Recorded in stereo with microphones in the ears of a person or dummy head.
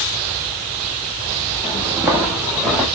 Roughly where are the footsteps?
Right.